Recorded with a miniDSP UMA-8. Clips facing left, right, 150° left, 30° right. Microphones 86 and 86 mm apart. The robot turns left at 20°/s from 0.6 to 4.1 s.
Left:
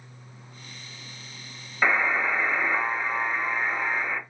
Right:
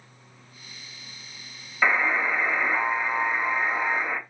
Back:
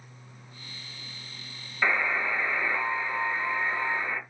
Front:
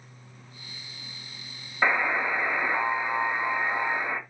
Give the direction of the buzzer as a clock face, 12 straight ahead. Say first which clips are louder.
Even, front 2 dB; 12 o'clock.